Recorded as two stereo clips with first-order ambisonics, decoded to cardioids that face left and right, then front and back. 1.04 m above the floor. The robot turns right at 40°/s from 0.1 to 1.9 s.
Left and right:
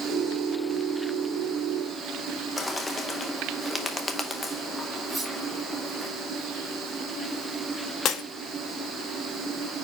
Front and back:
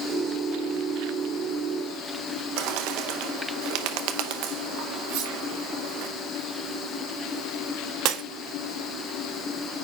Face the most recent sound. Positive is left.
turn(degrees=145)